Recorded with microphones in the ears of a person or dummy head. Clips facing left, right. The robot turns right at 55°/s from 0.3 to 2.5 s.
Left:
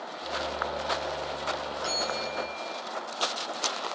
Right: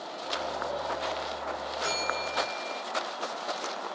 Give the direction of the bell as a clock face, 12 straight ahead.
4 o'clock.